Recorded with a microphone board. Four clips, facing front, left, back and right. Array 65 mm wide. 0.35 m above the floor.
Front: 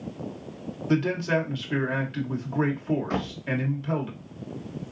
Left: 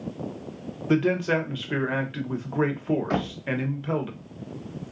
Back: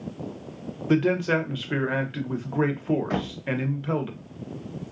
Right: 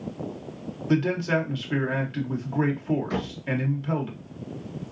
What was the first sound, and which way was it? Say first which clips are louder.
A man speaking: left 1 dB, back 3 dB; 140° left.